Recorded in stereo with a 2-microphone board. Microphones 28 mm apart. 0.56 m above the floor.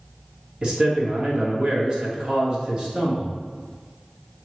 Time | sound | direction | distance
0.6 | a man speaking | 30° right (ahead or behind) | 1.1 m